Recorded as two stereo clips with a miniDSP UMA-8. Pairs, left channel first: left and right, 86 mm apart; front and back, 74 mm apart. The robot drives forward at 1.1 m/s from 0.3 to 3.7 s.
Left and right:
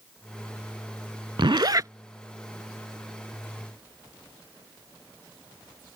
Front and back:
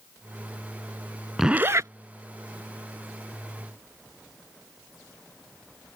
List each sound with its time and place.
1.4 s a zipper: 95° right; by 1.9 s 140° right